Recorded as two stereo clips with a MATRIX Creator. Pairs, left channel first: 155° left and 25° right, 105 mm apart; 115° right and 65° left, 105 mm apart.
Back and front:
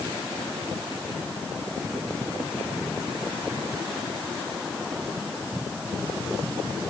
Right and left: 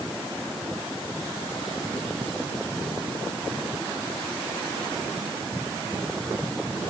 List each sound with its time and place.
Only background noise.